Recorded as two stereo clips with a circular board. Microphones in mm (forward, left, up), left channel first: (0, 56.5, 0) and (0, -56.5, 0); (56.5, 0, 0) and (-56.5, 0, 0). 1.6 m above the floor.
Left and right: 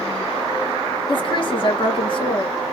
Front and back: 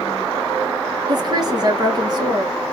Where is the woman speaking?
130° left, 1.5 m.